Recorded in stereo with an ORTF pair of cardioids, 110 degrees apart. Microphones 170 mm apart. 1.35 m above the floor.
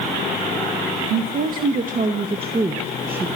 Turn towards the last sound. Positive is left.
turn(degrees=-10)